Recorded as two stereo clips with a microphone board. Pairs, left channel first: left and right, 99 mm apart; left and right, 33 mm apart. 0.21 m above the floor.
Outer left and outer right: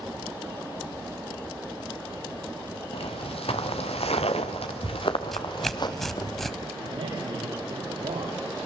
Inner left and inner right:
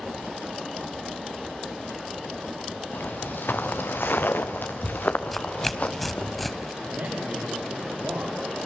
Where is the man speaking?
80° right, 7.5 m.